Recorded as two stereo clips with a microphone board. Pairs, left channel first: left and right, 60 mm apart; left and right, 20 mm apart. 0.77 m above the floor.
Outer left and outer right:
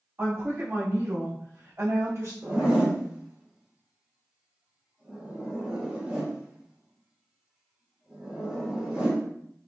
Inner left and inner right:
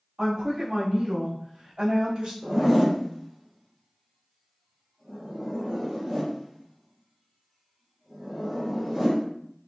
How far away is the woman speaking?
About 1.6 m.